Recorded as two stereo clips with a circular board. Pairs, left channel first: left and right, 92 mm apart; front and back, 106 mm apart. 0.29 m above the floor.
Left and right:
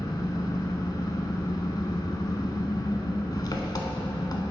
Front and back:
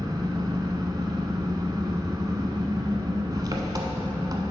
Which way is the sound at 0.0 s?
130° left.